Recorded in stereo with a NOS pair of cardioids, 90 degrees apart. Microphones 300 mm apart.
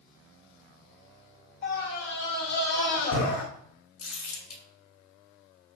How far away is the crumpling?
About 1.9 m.